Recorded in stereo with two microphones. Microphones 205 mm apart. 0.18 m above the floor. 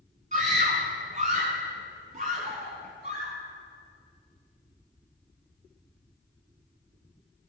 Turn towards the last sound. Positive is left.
turn(degrees=-40)  # may be behind; listen again after turning